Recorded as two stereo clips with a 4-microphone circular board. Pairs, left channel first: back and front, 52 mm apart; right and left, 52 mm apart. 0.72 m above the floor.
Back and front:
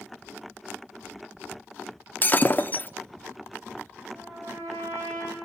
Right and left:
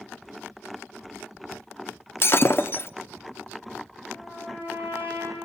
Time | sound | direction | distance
2.2 | breaking glass | 130° right | 0.7 m
4.1 | a trumpet | 30° right | 9 m